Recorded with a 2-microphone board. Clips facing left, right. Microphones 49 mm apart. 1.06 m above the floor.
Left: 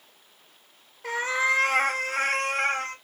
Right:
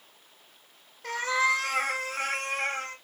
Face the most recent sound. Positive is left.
turn(degrees=70)  # may be behind; listen again after turning